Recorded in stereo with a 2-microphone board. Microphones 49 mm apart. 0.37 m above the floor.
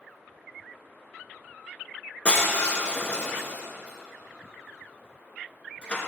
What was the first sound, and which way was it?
Breaking glass, 25° left (ahead or behind).